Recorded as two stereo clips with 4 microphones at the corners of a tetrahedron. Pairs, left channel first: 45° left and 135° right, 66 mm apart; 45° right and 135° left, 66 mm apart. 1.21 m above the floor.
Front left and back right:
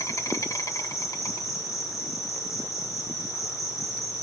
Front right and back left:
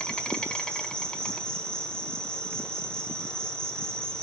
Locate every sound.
0.0 s an insect: 30° left, 1.5 m